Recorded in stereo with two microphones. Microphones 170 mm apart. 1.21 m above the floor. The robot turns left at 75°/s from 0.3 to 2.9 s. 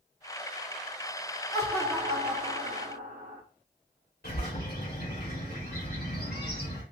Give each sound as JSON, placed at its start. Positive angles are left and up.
{"t": 1.5, "sound": "laughter", "azimuth_deg": 25, "distance_m": 1.0}
{"t": 4.2, "sound": "a bird", "side_deg": 70, "distance_m": 2.0}